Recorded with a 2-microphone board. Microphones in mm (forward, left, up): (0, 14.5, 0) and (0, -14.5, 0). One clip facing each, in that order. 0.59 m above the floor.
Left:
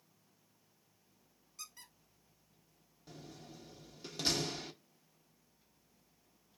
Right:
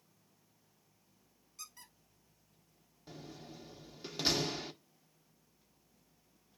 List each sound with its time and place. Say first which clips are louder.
1.6 s a squeak: even; centre (ahead or behind), 1.3 m
3.1 s a door slam: right 3 dB; 25° right (ahead or behind), 0.6 m